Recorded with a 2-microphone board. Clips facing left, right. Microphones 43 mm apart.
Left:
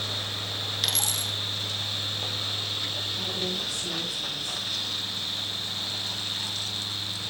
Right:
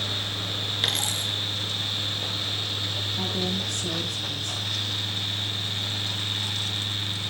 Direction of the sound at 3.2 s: 55° right (ahead or behind).